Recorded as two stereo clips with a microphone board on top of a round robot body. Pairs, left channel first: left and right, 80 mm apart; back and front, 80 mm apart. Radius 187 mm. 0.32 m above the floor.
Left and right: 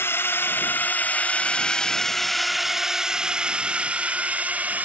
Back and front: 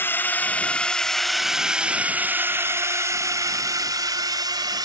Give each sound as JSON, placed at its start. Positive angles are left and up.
{"t": 0.0, "sound": "a drone", "azimuth_deg": 130}